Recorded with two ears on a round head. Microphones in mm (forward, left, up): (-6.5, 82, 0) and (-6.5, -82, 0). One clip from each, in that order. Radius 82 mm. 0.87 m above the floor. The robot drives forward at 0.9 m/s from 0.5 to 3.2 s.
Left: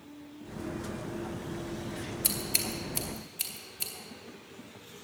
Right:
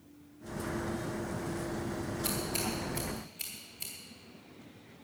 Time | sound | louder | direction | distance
2.2 | scissors | left 4 dB | 45° left (ahead or behind) | 2.5 m